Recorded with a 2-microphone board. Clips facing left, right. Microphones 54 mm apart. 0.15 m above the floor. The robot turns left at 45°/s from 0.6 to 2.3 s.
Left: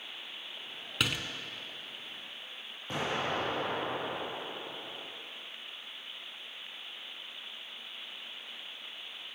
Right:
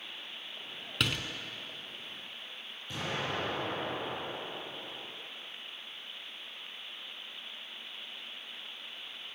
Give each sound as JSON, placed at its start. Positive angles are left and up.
{"t": 1.0, "sound": "a door slam", "side_deg": 5, "distance_m": 0.9}
{"t": 2.9, "sound": "an explosion", "side_deg": 45, "distance_m": 5.0}